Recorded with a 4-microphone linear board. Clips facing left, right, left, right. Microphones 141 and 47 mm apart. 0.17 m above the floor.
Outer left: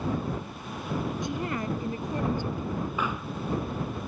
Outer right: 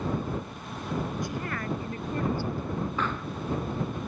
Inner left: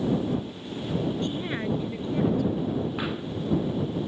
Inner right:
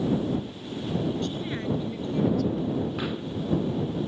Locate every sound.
1.2 s a woman speaking: 20° left (ahead or behind); by 2.9 s 15° left (ahead or behind)
3.0 s a pop: 10° left (ahead or behind)